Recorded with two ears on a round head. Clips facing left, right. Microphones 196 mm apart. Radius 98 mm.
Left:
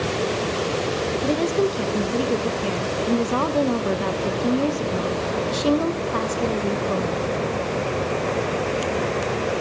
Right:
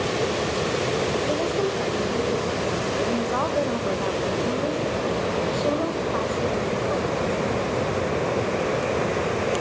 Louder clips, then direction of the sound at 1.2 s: Left 3 dB; 45° left (ahead or behind).